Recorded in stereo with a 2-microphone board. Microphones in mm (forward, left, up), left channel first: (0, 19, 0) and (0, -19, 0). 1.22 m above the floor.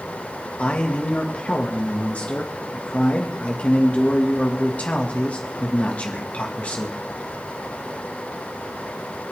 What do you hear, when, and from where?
0.6 s a man speaking: 40° left (ahead or behind), 1.8 m